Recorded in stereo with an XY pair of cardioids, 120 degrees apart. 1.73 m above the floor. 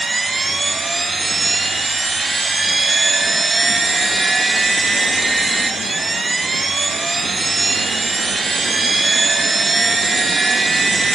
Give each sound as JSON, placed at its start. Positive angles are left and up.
{"t": 0.0, "sound": "a machine running", "azimuth_deg": -20, "distance_m": 0.8}